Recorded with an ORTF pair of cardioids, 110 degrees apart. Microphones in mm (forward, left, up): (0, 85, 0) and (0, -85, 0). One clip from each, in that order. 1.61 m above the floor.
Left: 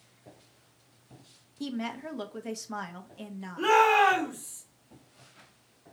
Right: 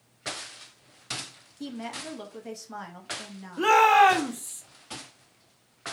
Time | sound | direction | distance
1.6 | a woman speaking | 15° left | 0.8 m
3.6 | a shout | 35° right | 1.3 m